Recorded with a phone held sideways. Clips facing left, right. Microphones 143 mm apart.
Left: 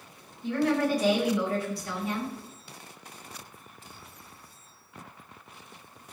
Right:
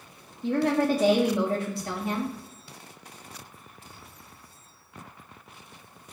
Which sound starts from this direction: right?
A woman speaking, at 0.4 s.